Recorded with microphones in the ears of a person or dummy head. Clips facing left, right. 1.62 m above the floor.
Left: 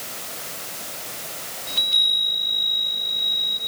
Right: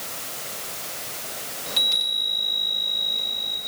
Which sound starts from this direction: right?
A chime, at 1.7 s.